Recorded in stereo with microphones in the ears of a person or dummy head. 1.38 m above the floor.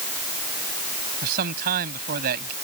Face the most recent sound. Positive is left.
turn(degrees=-55)  # may be behind; listen again after turning